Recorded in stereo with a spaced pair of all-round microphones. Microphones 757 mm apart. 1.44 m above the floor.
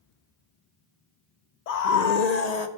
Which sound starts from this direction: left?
A scream, at 1.7 s.